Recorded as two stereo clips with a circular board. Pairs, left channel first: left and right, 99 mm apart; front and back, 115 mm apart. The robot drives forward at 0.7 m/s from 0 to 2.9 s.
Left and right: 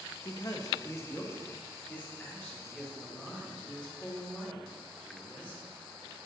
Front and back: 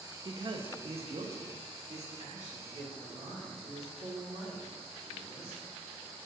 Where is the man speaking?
130° left, 0.7 m; by 5.7 s 165° left, 2.5 m.